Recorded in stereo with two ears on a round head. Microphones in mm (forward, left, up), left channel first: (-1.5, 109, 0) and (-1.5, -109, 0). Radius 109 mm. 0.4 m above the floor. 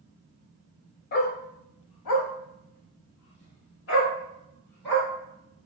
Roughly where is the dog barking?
Left.